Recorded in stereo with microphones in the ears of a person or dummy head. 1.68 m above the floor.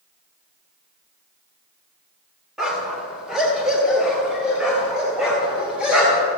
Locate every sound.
2.6 s a dog barking: centre (ahead or behind), 2.5 m; by 6.3 s 5° right (ahead or behind), 5 m